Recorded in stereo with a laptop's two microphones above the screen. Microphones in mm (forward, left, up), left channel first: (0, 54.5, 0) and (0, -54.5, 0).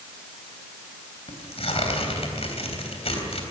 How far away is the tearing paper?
About 3 m.